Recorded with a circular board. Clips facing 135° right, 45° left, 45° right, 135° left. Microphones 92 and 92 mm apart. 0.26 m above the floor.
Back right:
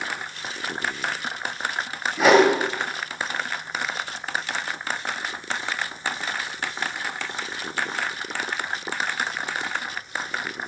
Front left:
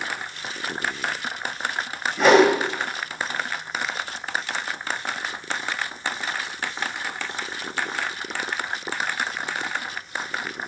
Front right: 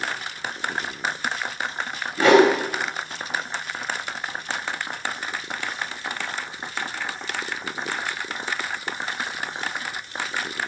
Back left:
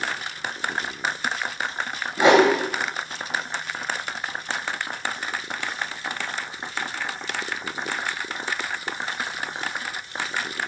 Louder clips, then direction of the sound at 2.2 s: Front left 1 dB, front right 1 dB; 145° left.